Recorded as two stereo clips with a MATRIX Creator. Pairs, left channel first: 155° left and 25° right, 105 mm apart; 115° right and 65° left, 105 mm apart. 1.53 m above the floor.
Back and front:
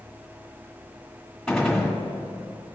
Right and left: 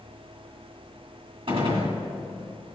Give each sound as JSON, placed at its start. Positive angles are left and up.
{"t": 1.5, "sound": "a gunshot", "azimuth_deg": 70, "distance_m": 1.8}